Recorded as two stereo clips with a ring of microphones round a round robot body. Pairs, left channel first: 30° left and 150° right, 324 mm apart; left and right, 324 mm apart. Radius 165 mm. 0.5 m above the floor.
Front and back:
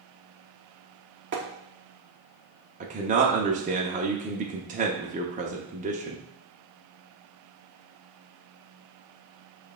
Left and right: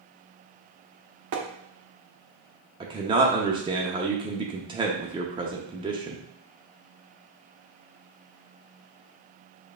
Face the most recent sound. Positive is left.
turn(degrees=-140)